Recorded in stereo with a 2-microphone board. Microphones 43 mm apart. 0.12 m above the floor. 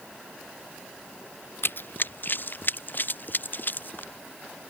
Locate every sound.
1.6 s running footsteps: 55° left (ahead or behind); by 4.1 s 45° left (ahead or behind)